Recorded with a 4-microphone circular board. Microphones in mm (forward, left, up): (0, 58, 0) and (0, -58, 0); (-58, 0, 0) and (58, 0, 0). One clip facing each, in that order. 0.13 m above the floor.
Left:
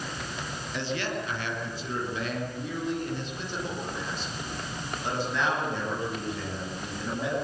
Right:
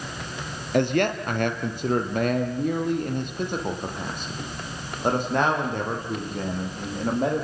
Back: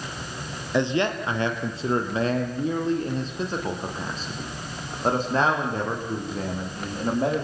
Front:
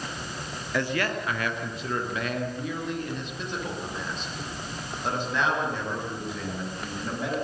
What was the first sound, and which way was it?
A man speaking, 115° right.